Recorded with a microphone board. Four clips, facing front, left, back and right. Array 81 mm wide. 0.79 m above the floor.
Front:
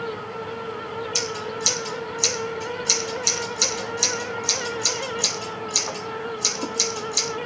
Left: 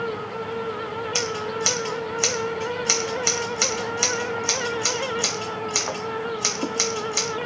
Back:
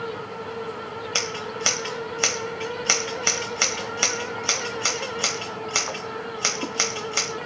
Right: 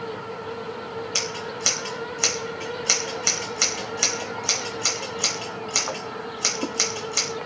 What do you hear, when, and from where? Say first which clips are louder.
1.1 s scissors: left 4 dB, front 1 dB; straight behind, 1.8 m